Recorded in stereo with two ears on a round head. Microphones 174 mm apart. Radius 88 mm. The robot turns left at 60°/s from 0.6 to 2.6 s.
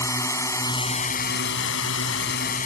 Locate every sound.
0.0 s a drone: 165° left; by 2.7 s 45° left